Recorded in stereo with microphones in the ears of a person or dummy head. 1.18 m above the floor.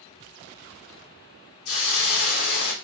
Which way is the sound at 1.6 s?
70° left (ahead or behind).